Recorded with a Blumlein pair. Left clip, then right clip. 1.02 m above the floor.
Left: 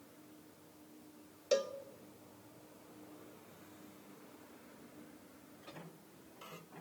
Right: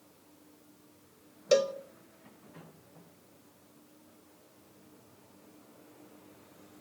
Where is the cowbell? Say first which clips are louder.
Right 8 dB; 70° right, 0.8 m.